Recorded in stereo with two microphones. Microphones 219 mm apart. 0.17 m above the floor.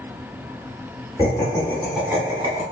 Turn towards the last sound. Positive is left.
turn(degrees=-30)  # may be behind; listen again after turning